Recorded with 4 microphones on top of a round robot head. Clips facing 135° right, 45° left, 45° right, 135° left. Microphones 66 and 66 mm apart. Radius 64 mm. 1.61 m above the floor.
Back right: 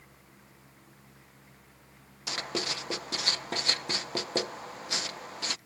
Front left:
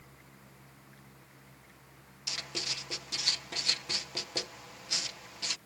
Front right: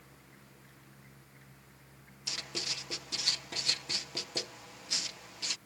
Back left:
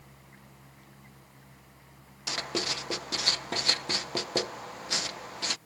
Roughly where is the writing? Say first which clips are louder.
Back right 7 dB, back left 9 dB; behind.